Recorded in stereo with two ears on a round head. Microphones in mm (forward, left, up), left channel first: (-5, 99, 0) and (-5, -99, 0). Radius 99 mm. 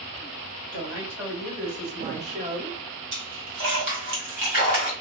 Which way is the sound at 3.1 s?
60° right (ahead or behind).